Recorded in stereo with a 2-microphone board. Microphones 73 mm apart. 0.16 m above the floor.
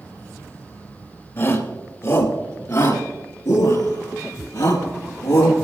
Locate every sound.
1.4 s a shout: 45° left (ahead or behind), 3 m; by 5.5 s 75° left (ahead or behind), 4.5 m